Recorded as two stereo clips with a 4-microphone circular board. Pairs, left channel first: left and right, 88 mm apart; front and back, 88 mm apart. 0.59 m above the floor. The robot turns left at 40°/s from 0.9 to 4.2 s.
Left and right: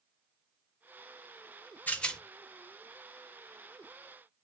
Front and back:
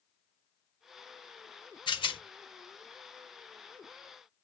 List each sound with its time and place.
1.9 s a rattle: 20° left, 0.5 m; by 2.2 s 5° left, 0.5 m